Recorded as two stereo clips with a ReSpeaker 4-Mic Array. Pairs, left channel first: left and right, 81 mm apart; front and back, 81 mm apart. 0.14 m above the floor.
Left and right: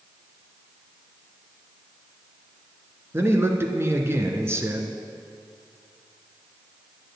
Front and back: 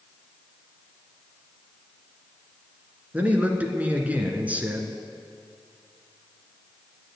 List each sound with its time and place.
3.1 s a man speaking: 120° right, 1.5 m